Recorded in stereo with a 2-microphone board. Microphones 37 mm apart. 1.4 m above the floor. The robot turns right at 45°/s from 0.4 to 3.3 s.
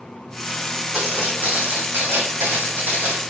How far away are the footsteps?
About 5.5 m.